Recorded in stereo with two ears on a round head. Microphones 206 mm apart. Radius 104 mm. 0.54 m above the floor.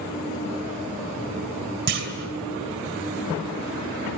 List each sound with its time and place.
1.9 s a clunk: 50° right (ahead or behind), 2.5 m